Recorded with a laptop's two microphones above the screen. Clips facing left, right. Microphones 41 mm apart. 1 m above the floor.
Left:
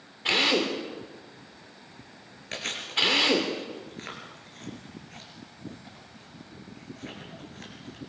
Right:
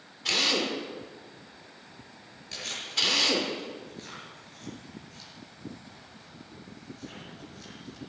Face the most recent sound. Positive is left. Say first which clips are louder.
# left 3 dB
turn(degrees=45)  # may be behind; listen again after turning